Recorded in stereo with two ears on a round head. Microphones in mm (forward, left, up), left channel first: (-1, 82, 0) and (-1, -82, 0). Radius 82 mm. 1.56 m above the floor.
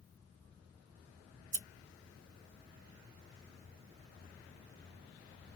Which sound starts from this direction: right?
Scissors, at 1.4 s.